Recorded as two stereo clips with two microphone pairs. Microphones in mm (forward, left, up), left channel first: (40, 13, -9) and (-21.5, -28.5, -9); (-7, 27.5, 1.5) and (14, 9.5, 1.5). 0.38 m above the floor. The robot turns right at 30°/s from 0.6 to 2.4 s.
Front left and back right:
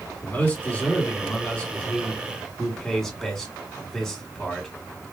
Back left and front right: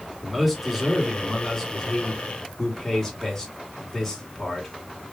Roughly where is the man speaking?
Ahead left.